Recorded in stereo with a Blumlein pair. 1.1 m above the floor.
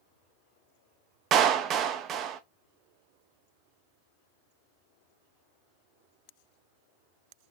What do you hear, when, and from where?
1.3 s a clap: 30° right, 0.7 m